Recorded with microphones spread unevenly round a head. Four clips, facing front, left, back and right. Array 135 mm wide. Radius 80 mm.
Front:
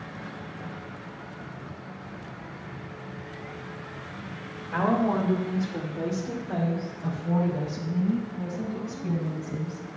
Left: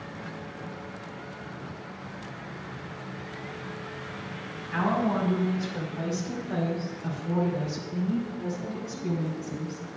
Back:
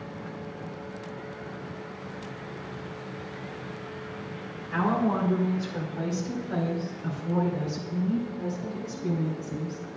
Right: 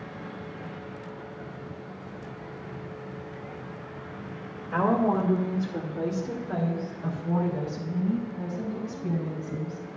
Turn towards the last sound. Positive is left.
turn(degrees=-15)